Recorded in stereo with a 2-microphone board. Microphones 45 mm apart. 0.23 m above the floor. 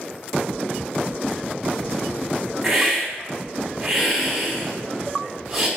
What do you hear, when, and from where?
2.6 s a hiss: 10° right (ahead or behind), 1.2 m